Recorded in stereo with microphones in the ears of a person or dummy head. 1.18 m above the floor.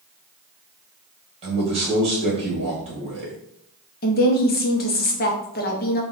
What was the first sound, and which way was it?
A man speaking, 35° right (ahead or behind).